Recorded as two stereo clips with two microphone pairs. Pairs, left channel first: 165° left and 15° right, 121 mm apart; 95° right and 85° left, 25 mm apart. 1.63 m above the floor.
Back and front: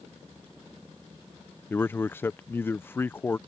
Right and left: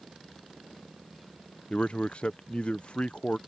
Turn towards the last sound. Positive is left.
turn(degrees=-130)